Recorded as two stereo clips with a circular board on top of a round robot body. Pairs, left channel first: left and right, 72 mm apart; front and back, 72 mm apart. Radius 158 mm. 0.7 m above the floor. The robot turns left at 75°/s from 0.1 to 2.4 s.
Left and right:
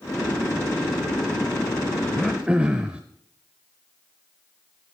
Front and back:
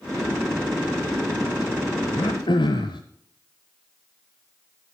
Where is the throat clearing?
5° left, 0.5 m; by 3.0 s 15° right, 0.5 m.